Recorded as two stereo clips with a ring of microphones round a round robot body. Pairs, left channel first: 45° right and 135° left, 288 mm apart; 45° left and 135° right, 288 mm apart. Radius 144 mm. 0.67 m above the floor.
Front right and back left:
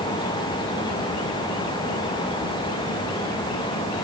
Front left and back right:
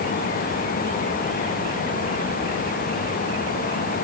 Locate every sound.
Only background noise.